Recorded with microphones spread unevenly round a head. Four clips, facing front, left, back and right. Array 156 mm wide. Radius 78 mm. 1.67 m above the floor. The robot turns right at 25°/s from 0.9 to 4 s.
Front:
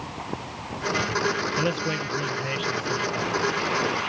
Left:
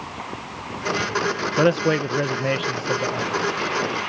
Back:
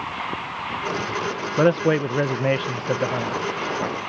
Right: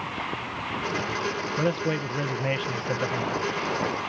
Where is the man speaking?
135° left; by 3.4 s straight behind.